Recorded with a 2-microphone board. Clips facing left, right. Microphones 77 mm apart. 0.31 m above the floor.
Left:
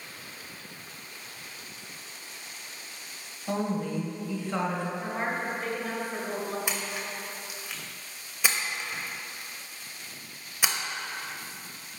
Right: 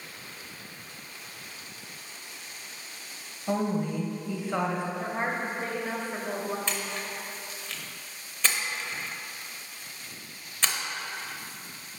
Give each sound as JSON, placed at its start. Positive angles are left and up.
{"t": 3.5, "sound": "a woman speaking", "side_deg": -15, "distance_m": 1.1}
{"t": 5.0, "sound": "a woman speaking", "side_deg": -25, "distance_m": 1.0}
{"t": 6.7, "sound": "a splash", "side_deg": 10, "distance_m": 0.6}